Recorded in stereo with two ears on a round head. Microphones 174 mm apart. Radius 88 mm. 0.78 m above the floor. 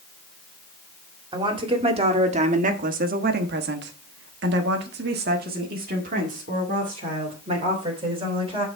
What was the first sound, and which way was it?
A woman speaking, 25° right (ahead or behind).